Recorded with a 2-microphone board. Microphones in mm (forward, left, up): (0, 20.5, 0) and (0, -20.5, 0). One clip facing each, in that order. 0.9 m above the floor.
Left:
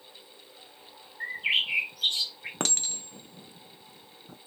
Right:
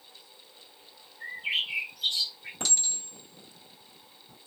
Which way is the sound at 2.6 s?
55° left (ahead or behind).